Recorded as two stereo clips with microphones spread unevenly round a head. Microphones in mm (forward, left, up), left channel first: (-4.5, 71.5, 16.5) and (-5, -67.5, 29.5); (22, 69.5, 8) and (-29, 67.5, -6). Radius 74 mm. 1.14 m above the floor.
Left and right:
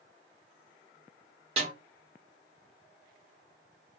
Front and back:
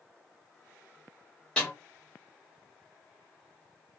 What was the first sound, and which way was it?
A snare drum, 55° right.